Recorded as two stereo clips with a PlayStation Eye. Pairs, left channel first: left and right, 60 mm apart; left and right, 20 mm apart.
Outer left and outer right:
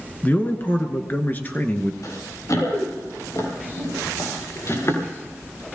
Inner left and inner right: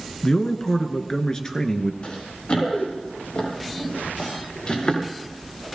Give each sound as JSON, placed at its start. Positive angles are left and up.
{"t": 0.2, "sound": "a man speaking", "side_deg": 30, "distance_m": 1.3}
{"t": 2.0, "sound": "running footsteps", "side_deg": 65, "distance_m": 7.5}